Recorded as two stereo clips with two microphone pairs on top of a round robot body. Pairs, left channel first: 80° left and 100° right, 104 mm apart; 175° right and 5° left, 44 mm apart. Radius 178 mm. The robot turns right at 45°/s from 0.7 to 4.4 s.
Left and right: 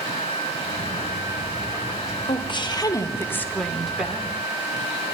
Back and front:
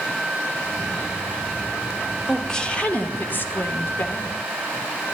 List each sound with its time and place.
2.2 s a woman speaking: 100° left, 1.3 m; by 4.3 s 170° right, 1.3 m